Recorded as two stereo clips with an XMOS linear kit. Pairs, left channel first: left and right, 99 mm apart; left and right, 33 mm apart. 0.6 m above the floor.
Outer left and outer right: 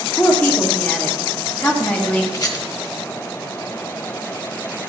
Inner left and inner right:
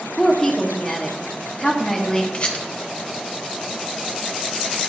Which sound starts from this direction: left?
A rattle, at 2.3 s.